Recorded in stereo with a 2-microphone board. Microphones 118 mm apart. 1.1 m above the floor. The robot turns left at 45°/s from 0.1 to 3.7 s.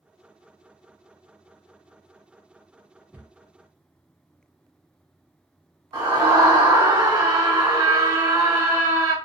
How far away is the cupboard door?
About 0.6 m.